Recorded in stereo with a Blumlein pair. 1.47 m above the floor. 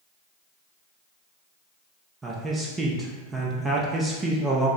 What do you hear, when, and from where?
2.2 s a man speaking: 15° right, 0.6 m